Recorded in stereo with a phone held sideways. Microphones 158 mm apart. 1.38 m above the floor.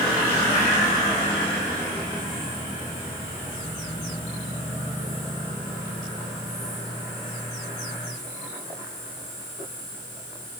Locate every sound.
Only background noise.